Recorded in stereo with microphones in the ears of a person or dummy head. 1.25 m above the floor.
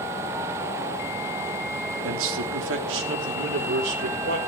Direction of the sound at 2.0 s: 75° right (ahead or behind).